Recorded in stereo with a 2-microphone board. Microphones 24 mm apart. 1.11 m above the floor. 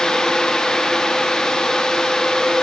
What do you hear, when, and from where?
Only background noise.